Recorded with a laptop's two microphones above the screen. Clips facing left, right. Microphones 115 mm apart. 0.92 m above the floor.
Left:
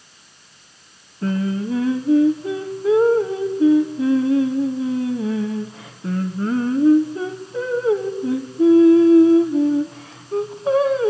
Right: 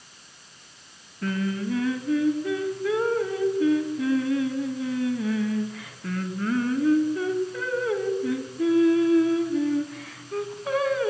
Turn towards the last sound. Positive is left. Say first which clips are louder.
# left 5 dB
turn(degrees=25)  # may be behind; listen again after turning